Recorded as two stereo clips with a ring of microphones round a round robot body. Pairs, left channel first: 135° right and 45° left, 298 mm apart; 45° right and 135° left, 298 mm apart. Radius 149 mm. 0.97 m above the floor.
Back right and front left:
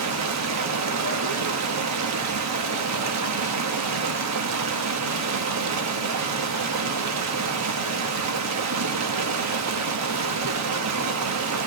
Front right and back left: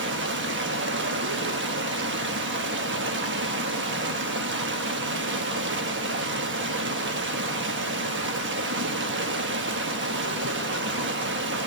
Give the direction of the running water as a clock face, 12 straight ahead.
9 o'clock.